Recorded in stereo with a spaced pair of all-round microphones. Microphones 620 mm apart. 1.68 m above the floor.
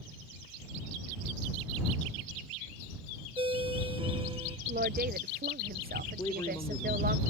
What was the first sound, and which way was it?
A ringtone, 10° right (ahead or behind).